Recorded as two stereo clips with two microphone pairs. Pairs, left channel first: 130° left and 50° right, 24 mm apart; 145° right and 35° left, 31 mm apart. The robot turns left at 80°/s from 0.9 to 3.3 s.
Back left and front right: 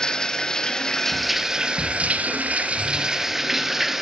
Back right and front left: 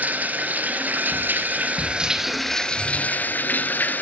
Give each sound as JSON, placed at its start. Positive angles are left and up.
{"t": 0.0, "sound": "running water", "azimuth_deg": 60, "distance_m": 1.5}